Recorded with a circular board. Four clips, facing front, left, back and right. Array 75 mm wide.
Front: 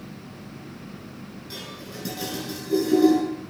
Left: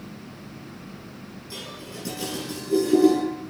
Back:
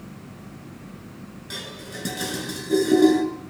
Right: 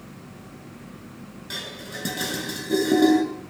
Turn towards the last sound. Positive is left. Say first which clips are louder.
# right 3 dB, back 3 dB
turn(degrees=-120)